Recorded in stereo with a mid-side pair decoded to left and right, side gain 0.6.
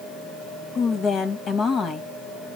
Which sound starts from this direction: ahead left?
A woman speaking, at 0.8 s.